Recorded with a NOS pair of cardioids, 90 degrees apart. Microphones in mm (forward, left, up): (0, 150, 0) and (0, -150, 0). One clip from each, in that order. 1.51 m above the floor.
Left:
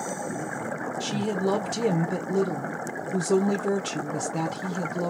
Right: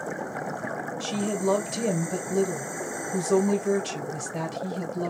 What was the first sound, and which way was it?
A woman speaking, 35° left.